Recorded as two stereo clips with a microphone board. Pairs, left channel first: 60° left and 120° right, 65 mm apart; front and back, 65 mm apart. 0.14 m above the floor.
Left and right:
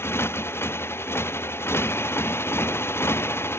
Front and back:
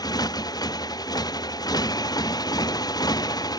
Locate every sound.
0.0 s a motorcycle: 5° left